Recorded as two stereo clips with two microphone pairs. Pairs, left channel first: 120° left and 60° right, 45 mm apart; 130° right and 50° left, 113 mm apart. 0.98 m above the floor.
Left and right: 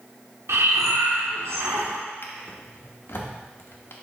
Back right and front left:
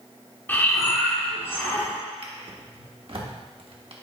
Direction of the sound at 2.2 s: 90° left.